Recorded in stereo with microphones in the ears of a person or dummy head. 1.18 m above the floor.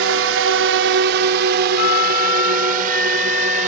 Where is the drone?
65° right (ahead or behind); by 3.7 s 40° right (ahead or behind).